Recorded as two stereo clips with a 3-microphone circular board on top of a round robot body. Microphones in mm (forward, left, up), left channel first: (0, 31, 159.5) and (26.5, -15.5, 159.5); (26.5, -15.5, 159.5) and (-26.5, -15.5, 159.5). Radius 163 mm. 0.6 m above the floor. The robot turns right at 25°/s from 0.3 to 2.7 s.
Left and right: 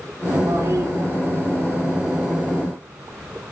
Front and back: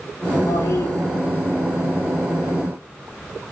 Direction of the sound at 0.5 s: 35° right.